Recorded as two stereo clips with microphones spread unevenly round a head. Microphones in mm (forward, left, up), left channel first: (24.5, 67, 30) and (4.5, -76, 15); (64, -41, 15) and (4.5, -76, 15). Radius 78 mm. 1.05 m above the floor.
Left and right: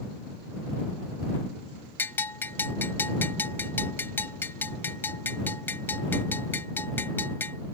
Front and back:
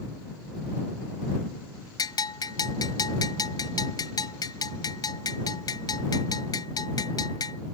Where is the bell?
5° left.